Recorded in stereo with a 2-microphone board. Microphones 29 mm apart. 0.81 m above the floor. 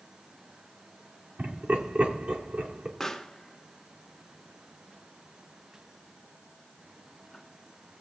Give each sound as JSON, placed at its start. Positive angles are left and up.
{"t": 1.4, "sound": "laughter", "side_deg": -70, "distance_m": 2.0}
{"t": 3.0, "sound": "a pop", "side_deg": 5, "distance_m": 0.8}